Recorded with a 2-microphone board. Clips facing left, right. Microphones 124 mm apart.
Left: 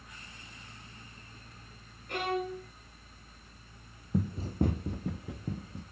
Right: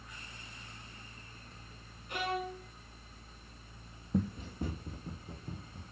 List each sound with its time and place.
2.1 s a violin: 65° left (ahead or behind), 3 m
4.1 s running footsteps: centre (ahead or behind), 0.6 m; by 5.8 s 90° left, 2.5 m